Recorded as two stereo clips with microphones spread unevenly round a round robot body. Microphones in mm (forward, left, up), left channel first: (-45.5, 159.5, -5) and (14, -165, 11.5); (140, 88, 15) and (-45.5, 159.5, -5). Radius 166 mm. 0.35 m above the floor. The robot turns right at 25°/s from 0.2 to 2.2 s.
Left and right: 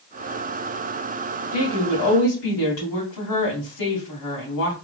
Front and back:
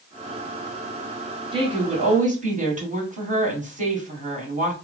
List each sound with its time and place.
1.5 s a woman speaking: 100° left, 2.5 m; by 4.7 s 115° left, 2.5 m